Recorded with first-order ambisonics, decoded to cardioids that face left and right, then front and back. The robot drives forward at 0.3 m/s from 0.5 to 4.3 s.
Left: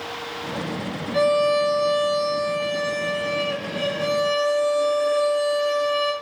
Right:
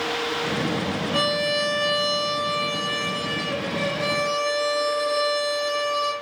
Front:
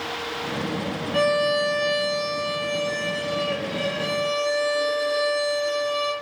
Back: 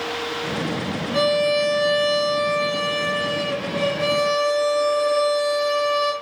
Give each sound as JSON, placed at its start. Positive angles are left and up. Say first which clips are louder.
{"t": 1.1, "sound": "a violin", "louder": "left 5 dB, back 2 dB", "azimuth_deg": -105, "distance_m": 1.3}